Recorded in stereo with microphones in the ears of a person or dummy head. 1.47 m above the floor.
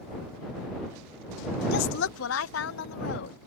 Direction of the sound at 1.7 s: 65° left (ahead or behind).